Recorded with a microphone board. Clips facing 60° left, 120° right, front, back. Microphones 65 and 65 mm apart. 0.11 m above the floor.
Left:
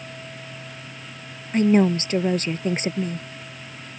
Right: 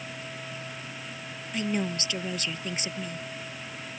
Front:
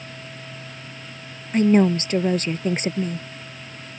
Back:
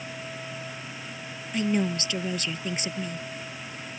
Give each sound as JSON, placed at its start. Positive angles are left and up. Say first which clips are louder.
{"t": 1.5, "sound": "a woman speaking", "louder": "left 12 dB, front 9 dB", "azimuth_deg": 30}